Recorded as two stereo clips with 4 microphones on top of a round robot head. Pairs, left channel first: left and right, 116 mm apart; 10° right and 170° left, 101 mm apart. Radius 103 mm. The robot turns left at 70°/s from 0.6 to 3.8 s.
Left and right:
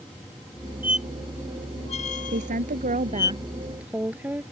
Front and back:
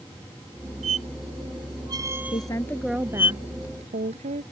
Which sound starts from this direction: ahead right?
A woman speaking, at 2.3 s.